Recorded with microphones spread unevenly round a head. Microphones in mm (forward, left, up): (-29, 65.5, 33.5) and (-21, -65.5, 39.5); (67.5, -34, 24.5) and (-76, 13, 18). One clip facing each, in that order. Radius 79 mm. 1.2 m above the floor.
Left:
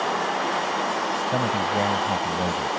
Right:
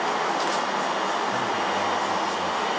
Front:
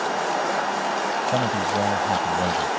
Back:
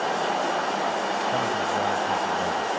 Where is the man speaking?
40° left.